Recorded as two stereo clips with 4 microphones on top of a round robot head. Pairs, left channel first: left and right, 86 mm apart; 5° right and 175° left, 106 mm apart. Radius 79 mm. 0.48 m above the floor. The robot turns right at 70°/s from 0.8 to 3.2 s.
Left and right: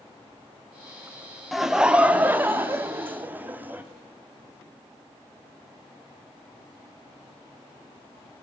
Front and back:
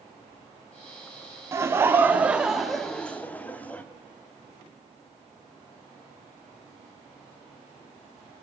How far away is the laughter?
About 0.7 m.